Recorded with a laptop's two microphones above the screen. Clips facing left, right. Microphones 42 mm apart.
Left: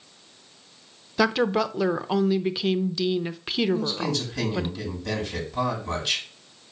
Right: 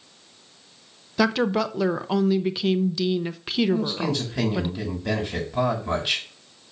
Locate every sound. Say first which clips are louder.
1.2 s a woman speaking: even; 5° left (ahead or behind), 0.7 m
3.7 s a man speaking: right 1 dB; 20° right (ahead or behind), 6.5 m